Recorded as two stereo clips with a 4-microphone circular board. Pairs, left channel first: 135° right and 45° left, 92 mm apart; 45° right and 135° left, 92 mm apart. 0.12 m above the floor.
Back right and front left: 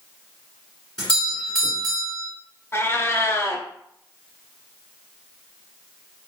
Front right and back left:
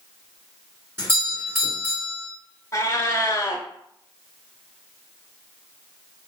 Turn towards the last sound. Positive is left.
turn(degrees=-85)